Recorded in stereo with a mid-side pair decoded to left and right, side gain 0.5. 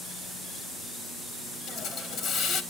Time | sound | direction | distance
1.7 | a hiss | 65° left | 1.8 m